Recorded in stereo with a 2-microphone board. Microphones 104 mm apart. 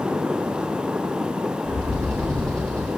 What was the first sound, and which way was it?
A bird, 30° right (ahead or behind).